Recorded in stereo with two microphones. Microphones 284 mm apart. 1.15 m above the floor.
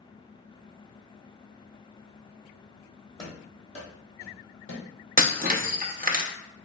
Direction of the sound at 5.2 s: 30° right (ahead or behind).